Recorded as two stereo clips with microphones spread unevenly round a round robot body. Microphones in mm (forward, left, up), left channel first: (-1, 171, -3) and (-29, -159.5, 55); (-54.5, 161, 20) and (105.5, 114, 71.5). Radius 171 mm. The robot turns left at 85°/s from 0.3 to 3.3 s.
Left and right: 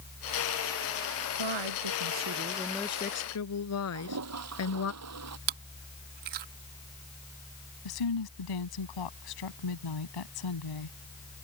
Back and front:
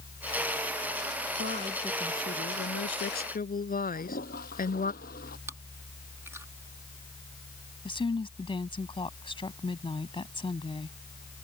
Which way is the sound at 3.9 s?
140° right.